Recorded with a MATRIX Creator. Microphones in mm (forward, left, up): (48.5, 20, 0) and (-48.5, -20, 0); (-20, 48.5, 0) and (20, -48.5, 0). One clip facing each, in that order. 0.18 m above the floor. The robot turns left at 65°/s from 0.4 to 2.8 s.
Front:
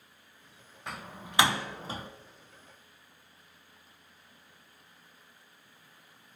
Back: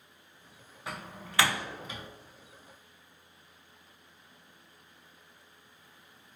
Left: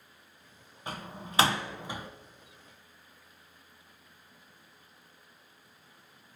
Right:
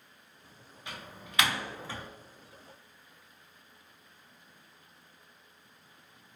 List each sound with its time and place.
0.9 s a door slam: 115° left, 1.0 m; by 2.1 s 35° left, 1.0 m